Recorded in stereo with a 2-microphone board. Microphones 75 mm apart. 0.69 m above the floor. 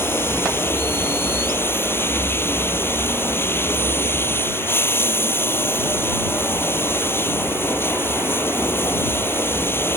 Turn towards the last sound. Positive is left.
turn(degrees=30)  # may be behind; listen again after turning